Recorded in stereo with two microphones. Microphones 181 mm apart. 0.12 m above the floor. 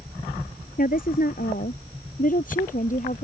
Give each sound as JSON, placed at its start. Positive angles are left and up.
{"t": 0.8, "sound": "a woman speaking", "side_deg": 50}